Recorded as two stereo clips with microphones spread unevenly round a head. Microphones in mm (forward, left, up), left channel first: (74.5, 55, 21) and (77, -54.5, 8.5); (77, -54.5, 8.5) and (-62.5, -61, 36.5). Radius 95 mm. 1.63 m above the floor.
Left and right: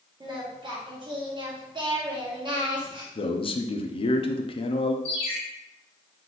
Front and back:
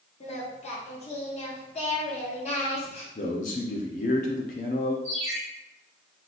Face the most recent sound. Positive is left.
turn(degrees=65)